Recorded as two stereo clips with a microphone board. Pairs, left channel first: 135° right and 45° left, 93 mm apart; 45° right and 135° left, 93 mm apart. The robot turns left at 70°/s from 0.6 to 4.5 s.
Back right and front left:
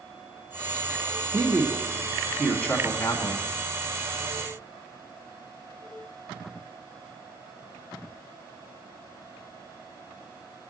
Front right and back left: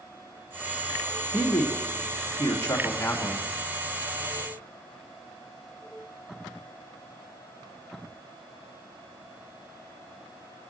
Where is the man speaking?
20° left, 1.2 m; by 3.5 s 130° right, 1.2 m.